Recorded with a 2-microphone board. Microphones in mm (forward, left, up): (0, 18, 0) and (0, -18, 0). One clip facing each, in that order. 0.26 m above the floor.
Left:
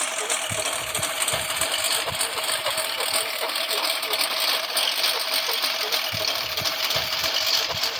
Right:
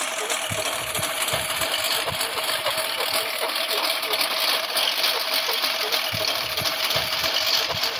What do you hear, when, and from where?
0.0 s a lawn mower: 5° right (ahead or behind); by 8.0 s 10° right (ahead or behind)